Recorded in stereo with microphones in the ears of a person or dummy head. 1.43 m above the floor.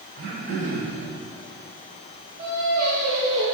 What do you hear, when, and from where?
0.2 s throat clearing: 40° right (ahead or behind), 2 m
2.4 s singing: 10° right (ahead or behind), 1.1 m